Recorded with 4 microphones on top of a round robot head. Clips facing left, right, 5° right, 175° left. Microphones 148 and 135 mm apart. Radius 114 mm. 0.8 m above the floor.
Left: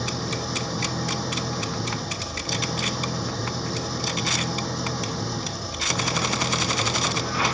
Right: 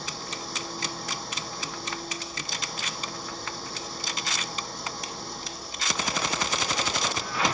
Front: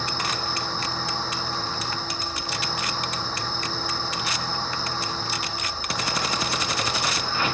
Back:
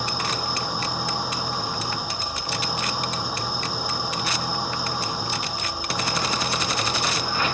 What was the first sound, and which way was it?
An engine running, 100° left.